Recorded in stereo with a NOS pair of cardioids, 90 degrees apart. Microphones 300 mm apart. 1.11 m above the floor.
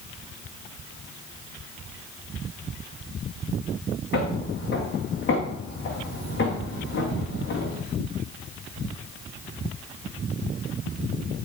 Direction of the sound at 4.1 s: 45° left.